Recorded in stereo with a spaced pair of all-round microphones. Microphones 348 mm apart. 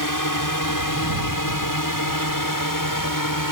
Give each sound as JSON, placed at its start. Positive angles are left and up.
{"t": 0.0, "sound": "a drone", "side_deg": 65}